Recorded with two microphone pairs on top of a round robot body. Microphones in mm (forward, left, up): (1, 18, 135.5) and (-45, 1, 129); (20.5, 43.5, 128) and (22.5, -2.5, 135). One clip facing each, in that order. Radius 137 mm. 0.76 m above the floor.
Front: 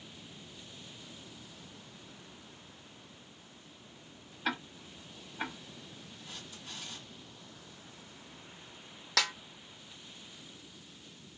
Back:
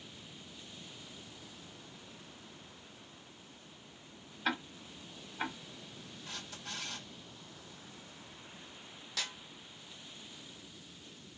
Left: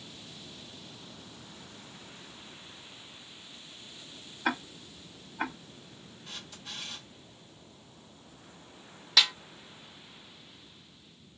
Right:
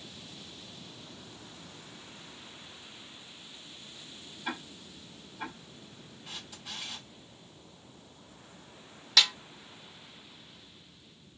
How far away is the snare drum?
About 0.5 m.